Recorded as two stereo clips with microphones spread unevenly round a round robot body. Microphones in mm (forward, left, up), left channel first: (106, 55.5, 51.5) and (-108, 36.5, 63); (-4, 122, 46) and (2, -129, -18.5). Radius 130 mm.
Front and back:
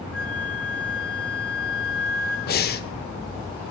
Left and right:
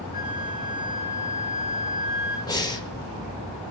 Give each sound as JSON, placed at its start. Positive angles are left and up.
{"t": 0.1, "sound": "a flute", "azimuth_deg": 95, "distance_m": 3.0}
{"t": 2.5, "sound": "breathing", "azimuth_deg": 10, "distance_m": 0.7}